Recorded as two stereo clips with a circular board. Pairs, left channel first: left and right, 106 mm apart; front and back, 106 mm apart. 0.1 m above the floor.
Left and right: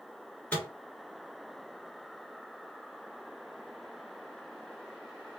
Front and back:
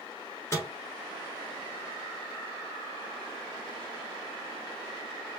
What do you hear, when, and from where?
0.5 s a microwave: 25° left, 1.2 m